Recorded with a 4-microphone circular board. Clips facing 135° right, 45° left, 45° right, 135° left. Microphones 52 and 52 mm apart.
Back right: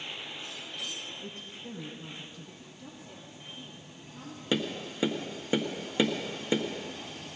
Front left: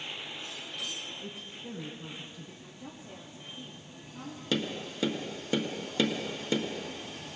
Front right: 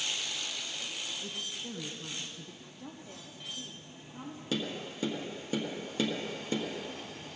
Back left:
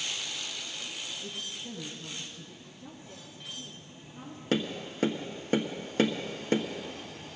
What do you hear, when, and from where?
1.2 s a woman speaking: 35° right, 1.3 m
2.6 s a woman speaking: 25° right, 4.5 m
4.5 s tapping: 160° left, 1.5 m